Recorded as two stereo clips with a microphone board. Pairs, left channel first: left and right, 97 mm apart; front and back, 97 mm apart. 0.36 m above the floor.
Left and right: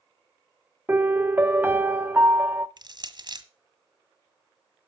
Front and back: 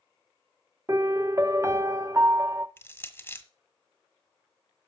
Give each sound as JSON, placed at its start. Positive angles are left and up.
{"t": 0.9, "sound": "a piano", "azimuth_deg": -145, "distance_m": 0.5}
{"t": 2.8, "sound": "crushing", "azimuth_deg": -65, "distance_m": 1.1}